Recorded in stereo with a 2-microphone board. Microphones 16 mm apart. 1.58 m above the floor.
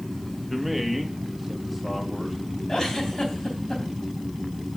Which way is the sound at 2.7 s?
50° left (ahead or behind).